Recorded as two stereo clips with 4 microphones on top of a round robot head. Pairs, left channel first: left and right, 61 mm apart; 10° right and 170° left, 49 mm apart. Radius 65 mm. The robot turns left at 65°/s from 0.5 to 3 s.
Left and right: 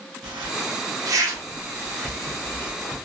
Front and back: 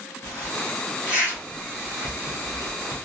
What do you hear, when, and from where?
0.2 s a zipper: 75° right, 1.1 m; by 3.0 s 125° left, 1.1 m